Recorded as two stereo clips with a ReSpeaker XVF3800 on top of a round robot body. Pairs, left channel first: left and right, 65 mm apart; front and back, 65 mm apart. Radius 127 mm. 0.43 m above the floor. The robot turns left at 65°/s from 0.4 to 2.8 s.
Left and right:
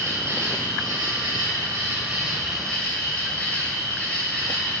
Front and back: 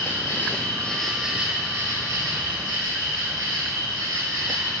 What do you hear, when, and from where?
0.0 s an insect: 45° right, 2.5 m; by 4.8 s 160° left, 2.5 m